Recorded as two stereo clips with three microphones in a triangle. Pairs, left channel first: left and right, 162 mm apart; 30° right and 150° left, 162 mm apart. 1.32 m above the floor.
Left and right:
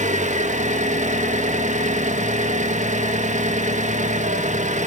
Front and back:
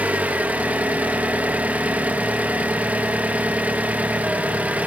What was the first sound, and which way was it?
An engine running, 130° right.